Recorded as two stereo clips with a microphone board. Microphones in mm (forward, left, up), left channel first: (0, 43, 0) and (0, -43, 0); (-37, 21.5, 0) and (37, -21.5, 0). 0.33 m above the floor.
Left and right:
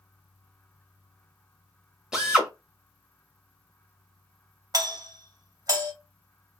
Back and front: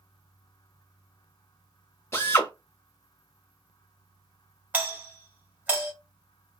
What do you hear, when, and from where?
2.1 s a drill: 170° right, 1.3 m
4.7 s a doorbell: 90° right, 1.9 m